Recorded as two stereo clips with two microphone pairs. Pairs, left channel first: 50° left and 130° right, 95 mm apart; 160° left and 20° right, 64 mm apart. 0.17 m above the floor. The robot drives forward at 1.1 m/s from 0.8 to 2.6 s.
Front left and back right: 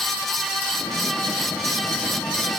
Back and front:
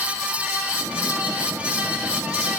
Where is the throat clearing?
No throat clearing in this recording.